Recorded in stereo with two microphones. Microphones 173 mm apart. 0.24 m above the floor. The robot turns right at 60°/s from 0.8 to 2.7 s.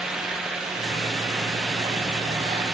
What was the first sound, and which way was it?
Only background noise.